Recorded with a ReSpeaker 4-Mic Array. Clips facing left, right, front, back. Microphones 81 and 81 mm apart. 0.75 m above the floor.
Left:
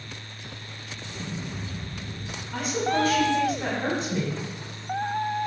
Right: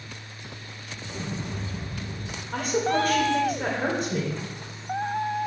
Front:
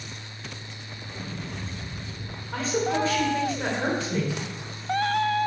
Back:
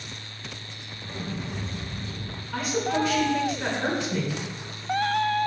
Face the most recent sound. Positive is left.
turn(degrees=-55)